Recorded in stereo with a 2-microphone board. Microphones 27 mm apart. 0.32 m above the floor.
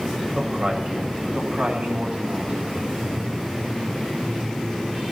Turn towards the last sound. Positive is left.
turn(degrees=-65)  # may be behind; listen again after turning